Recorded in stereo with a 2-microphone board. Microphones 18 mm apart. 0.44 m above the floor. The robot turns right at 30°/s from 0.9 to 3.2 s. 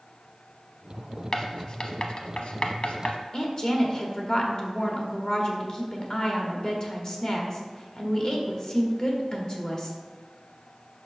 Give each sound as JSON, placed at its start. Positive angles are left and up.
{"t": 1.3, "sound": "writing", "side_deg": 35, "distance_m": 0.7}
{"t": 3.3, "sound": "a woman speaking", "side_deg": 35, "distance_m": 1.1}